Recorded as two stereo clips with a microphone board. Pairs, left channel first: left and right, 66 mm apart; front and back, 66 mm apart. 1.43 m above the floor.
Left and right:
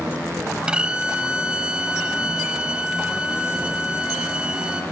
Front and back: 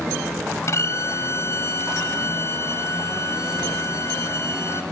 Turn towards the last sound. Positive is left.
turn(degrees=-20)